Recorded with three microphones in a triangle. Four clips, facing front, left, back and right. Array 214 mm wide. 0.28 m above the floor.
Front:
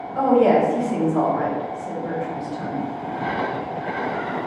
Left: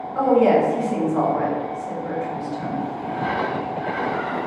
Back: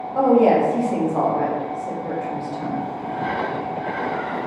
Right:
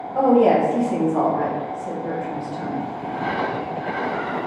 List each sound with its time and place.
0.1 s a woman speaking: 140° right, 1.1 m